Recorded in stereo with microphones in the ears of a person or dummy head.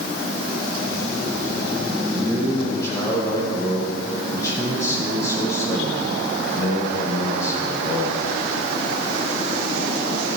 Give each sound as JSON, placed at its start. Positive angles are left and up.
{"t": 2.1, "sound": "a man speaking", "side_deg": 20, "distance_m": 6.5}